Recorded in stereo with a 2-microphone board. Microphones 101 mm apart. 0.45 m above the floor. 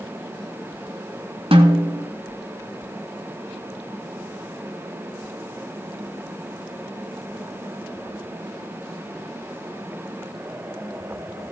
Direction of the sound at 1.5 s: 70° right (ahead or behind).